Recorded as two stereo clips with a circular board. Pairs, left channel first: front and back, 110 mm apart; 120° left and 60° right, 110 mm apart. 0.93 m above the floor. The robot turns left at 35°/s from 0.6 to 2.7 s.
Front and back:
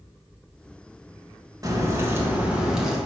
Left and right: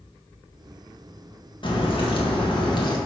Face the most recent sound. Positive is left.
turn(degrees=100)